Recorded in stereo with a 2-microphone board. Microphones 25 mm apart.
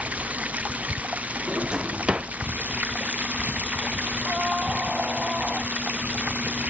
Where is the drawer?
45° right (ahead or behind).